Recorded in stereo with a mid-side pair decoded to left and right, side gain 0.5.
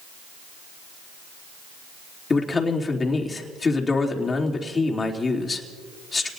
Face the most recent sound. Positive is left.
turn(degrees=30)